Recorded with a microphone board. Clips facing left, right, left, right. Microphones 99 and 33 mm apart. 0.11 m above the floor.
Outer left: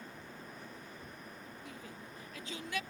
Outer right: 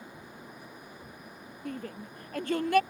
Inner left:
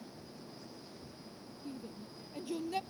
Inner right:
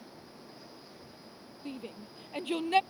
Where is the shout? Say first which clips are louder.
Outer right 15 dB, inner right 4 dB; 60° right (ahead or behind); by 2.8 s 65° right (ahead or behind).